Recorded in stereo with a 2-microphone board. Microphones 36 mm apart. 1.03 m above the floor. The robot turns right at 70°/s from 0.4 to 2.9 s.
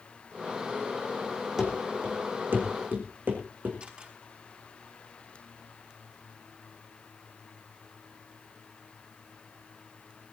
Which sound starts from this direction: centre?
Running footsteps, at 1.6 s.